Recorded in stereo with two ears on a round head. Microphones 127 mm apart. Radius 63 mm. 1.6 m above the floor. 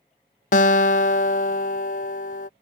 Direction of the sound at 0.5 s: 55° left (ahead or behind).